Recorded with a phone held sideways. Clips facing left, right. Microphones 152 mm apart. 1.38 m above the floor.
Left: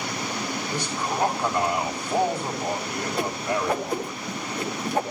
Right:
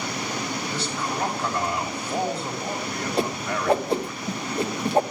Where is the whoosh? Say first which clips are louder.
Even; 30° right (ahead or behind), 1.3 m.